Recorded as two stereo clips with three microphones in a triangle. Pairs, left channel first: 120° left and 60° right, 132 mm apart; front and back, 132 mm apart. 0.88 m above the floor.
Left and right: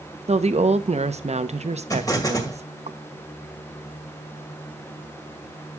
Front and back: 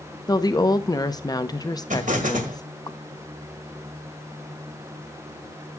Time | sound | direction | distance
0.3 | a woman speaking | 50° right | 0.8 m
1.9 | an explosion | 175° right | 1.9 m